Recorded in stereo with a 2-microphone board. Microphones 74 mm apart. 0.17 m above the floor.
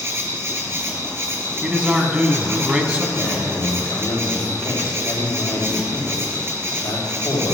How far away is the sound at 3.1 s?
About 4.5 m.